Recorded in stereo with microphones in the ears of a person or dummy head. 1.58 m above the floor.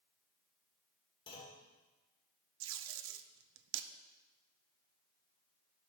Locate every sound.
1.3 s a clunk: 25° left (ahead or behind), 2.5 m
2.6 s tape being pulled: 70° right (ahead or behind), 0.6 m